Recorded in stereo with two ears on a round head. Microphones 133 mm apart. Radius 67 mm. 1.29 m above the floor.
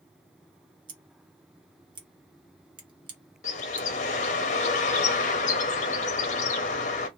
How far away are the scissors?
About 1.0 m.